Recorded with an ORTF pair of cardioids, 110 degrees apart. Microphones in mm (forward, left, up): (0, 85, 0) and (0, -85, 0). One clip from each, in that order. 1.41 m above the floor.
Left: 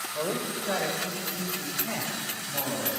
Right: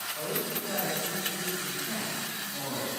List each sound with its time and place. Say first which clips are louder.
0.1 s a man speaking: left 6 dB; 50° left, 6 m; by 2.9 s 60° left, 8.5 m